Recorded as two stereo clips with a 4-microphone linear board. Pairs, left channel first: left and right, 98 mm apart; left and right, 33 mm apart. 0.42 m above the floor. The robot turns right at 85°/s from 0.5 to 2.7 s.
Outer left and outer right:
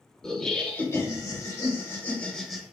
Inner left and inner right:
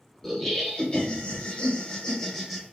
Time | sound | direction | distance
0.2 | laughter | 10° left | 1.0 m